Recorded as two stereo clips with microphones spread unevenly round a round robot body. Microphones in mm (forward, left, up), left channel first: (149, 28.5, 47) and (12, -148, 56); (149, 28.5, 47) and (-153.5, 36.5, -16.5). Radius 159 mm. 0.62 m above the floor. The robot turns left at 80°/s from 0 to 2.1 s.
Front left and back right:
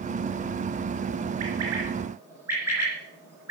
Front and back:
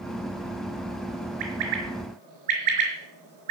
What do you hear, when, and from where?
1.4 s a bird: 155° right, 5 m; by 3.5 s 150° left, 5 m